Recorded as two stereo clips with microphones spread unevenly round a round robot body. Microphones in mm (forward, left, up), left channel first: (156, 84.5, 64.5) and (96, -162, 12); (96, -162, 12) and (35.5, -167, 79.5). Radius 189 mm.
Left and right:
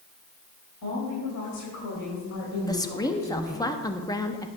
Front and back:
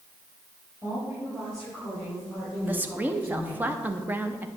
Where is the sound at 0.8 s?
90° left, 4.5 m; by 3.7 s 40° left, 4.5 m.